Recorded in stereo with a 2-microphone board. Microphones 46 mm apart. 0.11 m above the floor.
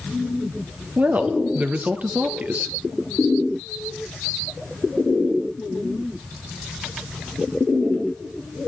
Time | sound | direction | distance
1.0 | a woman speaking | 40° right (ahead or behind) | 2.5 m